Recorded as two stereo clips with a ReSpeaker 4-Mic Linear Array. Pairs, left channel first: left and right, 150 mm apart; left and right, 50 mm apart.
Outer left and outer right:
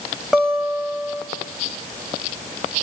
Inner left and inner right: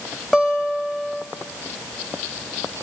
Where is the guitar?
Centre (ahead or behind), 3 m.